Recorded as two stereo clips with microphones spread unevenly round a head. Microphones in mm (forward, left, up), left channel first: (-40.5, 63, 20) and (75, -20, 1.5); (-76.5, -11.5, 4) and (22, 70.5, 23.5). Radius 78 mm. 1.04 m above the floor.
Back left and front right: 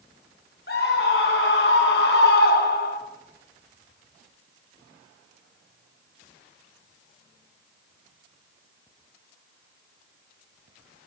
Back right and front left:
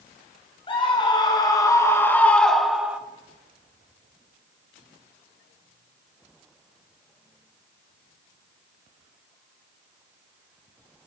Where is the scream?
175° left, 3.5 m; by 3.0 s 120° left, 2 m.